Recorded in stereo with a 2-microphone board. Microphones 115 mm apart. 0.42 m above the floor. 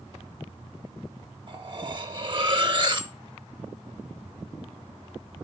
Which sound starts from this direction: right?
Cutlery clinking, at 1.5 s.